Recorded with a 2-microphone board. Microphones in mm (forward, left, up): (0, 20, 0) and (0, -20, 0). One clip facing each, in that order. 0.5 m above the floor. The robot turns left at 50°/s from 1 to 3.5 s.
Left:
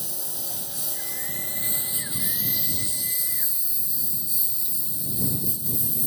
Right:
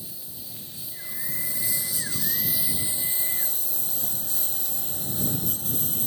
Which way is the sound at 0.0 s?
75° left.